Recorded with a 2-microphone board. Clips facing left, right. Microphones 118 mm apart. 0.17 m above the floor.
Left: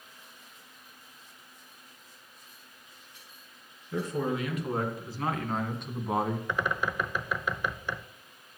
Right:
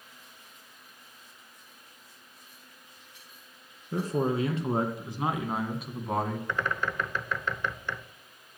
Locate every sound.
3.9 s a man speaking: 40° right (ahead or behind), 2.5 m; by 6.4 s 10° left (ahead or behind), 1.6 m
6.5 s a bird: 10° left (ahead or behind), 0.7 m